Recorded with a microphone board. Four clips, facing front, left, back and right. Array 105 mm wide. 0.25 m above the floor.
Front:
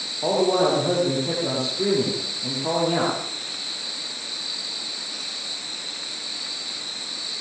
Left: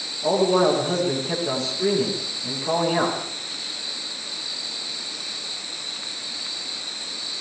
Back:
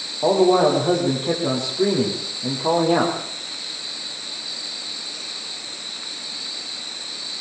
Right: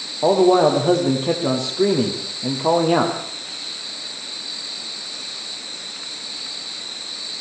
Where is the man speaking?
110° right, 9 m.